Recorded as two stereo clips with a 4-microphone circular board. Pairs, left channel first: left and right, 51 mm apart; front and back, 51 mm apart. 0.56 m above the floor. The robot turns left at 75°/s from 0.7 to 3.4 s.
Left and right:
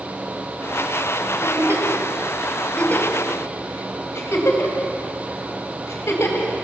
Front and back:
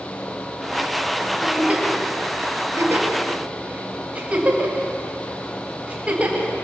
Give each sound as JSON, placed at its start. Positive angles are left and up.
{"t": 1.4, "sound": "a giggle", "azimuth_deg": -95, "distance_m": 4.0}